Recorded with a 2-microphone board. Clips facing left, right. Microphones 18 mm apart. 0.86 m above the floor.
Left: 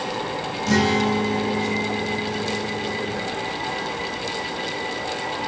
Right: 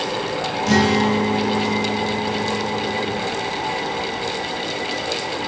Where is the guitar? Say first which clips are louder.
Right 2 dB; 10° right (ahead or behind), 0.8 m.